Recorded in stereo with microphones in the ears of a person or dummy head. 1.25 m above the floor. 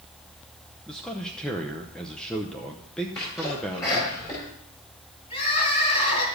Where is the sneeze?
15° left (ahead or behind), 5 m.